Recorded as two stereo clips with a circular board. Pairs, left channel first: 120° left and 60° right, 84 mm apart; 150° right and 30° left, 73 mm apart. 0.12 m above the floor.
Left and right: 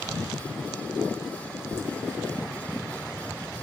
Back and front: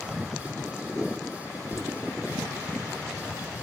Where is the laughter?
70° left, 4 m.